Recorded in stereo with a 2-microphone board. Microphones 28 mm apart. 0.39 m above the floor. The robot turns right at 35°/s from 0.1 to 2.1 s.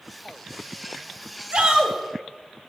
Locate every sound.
1.5 s a shout: 30° right (ahead or behind), 1.9 m; by 2.0 s 20° right (ahead or behind), 1.9 m